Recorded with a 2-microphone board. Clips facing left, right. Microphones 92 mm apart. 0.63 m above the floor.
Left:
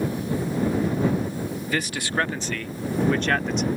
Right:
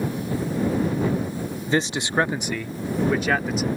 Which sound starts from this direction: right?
A man speaking, at 1.7 s.